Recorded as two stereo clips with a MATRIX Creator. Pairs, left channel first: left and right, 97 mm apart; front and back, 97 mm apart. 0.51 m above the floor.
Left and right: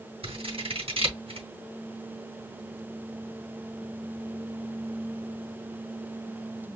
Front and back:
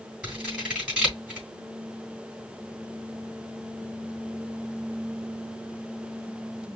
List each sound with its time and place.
0.2 s scissors: 100° right, 3.5 m